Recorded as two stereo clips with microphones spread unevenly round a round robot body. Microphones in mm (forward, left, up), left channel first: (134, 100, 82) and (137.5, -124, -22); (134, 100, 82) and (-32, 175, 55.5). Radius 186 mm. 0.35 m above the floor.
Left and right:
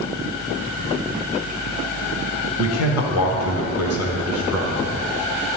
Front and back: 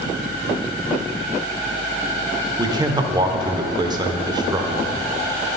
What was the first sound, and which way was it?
A man speaking, 115° left.